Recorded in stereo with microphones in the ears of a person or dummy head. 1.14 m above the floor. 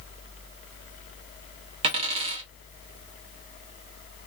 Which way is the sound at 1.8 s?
35° right (ahead or behind).